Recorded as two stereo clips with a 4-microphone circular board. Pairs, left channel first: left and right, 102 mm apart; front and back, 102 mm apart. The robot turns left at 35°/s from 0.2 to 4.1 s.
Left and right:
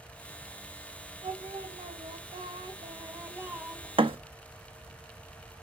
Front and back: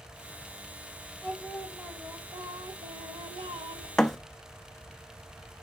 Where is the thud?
85° right, 0.7 m; by 4.2 s 90° right, 0.7 m.